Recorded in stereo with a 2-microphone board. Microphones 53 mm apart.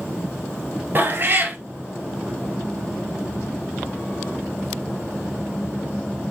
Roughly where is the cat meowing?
Right.